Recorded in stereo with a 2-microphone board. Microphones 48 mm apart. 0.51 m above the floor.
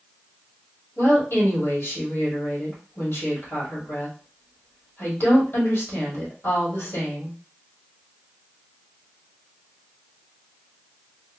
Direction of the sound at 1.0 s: 60° left (ahead or behind).